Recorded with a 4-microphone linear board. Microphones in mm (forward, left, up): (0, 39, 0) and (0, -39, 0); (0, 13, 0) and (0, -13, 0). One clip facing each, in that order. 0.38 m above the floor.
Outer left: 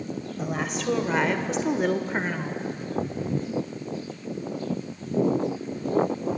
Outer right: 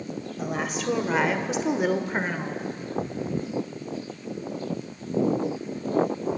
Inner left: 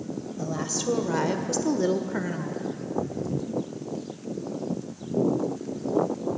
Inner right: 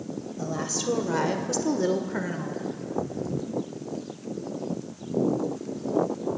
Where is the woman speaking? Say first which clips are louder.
Outer right 1 dB, even; centre (ahead or behind), 1.8 m; by 2.6 s 5° right (ahead or behind), 1.4 m.